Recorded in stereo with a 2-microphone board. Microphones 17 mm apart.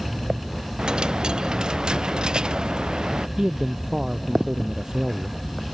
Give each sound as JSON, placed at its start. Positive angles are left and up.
{"t": 0.8, "sound": "a dropped coin", "side_deg": -50}
{"t": 3.4, "sound": "a man speaking", "side_deg": -40}